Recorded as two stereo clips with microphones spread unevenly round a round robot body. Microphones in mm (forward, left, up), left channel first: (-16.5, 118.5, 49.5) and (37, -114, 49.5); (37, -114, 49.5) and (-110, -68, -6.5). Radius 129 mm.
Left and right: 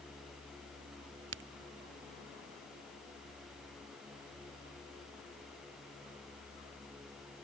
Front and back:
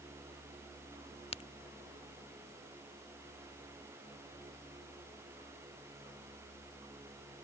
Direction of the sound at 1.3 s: 75° right.